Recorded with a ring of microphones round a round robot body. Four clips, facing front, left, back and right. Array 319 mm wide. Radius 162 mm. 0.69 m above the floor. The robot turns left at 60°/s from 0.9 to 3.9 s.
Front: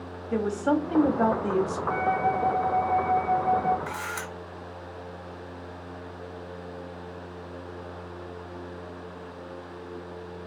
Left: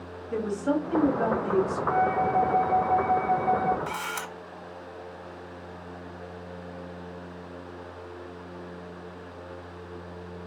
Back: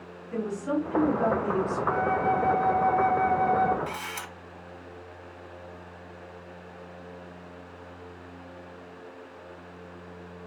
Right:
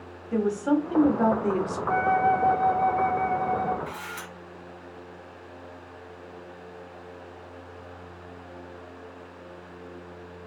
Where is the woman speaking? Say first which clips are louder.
Right 3 dB, front 4 dB; 5° right, 1.3 m; by 1.8 s 60° right, 1.3 m.